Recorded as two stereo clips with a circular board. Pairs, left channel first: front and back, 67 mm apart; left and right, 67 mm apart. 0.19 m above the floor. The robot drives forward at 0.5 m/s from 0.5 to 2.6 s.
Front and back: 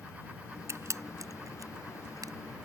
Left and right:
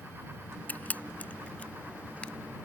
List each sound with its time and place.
0.7 s a camera shutter: 150° left; by 2.3 s 160° left